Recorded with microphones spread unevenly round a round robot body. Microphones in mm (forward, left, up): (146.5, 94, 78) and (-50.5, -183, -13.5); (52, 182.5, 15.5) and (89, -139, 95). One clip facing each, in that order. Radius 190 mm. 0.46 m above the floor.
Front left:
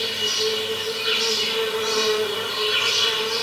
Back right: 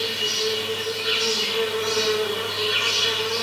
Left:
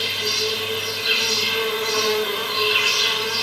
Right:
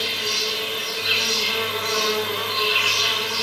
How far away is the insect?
About 2.5 m.